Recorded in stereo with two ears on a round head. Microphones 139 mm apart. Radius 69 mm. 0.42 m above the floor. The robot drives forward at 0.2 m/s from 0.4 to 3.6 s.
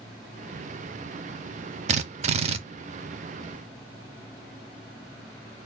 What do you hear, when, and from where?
1.9 s a drill: 45° right (ahead or behind), 0.5 m; by 2.6 s 40° right (ahead or behind), 0.6 m